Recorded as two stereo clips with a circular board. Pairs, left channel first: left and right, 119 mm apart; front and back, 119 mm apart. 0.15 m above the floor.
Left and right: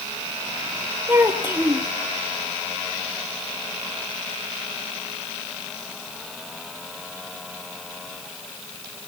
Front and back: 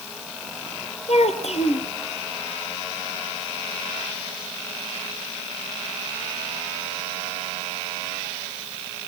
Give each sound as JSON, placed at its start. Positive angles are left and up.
{"t": 1.1, "sound": "a child speaking", "azimuth_deg": -20, "distance_m": 3.0}